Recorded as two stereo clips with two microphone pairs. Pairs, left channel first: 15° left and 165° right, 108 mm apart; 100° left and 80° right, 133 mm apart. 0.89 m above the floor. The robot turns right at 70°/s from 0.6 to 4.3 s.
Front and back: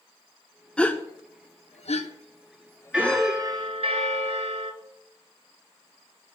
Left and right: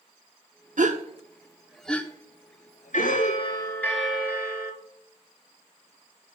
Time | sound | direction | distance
0.8 | a gasp | 65° right | 0.9 m
2.9 | a bell | 115° left | 2 m